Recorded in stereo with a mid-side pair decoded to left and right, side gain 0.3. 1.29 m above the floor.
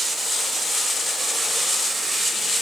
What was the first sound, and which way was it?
Only background noise.